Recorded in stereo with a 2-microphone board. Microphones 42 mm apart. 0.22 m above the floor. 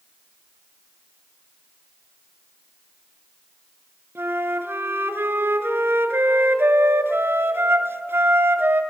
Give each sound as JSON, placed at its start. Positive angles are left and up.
{"t": 4.2, "sound": "a flute", "side_deg": -70, "distance_m": 1.4}